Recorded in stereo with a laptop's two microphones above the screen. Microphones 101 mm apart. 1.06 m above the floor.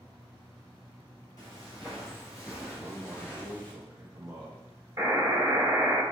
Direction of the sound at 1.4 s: 35° left (ahead or behind).